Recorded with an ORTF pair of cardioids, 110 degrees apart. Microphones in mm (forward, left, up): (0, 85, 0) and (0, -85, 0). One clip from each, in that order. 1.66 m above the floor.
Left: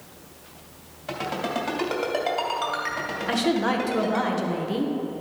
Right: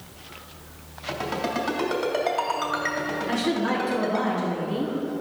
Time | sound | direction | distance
1.1 | a ringtone | 5° left | 2.5 m
3.3 | a woman speaking | 45° left | 1.5 m